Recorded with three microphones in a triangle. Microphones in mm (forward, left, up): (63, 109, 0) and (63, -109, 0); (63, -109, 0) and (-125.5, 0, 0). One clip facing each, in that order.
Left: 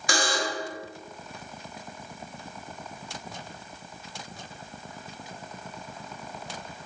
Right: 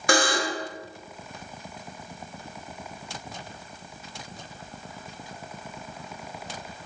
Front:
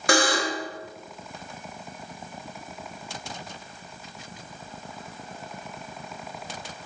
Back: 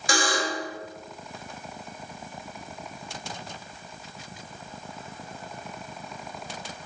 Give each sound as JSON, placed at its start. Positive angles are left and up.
{"t": 0.1, "sound": "a buzzer", "azimuth_deg": -55, "distance_m": 0.7}